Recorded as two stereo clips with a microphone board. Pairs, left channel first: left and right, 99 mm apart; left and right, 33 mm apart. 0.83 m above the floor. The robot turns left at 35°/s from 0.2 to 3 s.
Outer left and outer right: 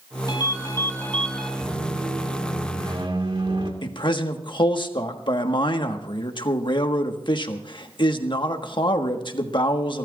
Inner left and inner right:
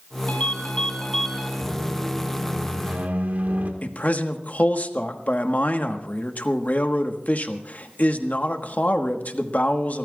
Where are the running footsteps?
I don't hear running footsteps.